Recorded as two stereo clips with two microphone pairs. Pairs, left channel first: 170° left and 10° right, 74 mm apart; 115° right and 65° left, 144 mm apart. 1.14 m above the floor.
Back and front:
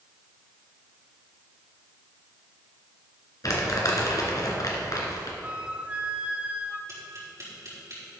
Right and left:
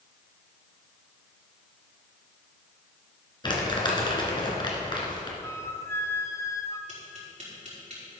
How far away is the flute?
About 0.7 m.